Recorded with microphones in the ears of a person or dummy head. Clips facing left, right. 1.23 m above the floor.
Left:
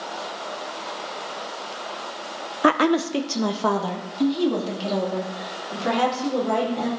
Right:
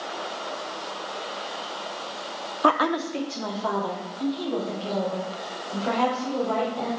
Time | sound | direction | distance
2.6 | a woman speaking | 30° left (ahead or behind) | 0.6 m